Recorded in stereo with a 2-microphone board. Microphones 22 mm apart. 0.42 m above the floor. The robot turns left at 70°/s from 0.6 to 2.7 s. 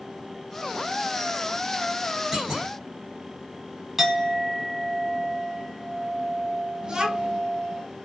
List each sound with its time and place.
2.3 s a clunk: 20° right (ahead or behind), 1.6 m; by 2.7 s 35° right (ahead or behind), 1.6 m
4.0 s a clink: 10° right (ahead or behind), 1.2 m
6.8 s a child speaking: 35° right (ahead or behind), 0.9 m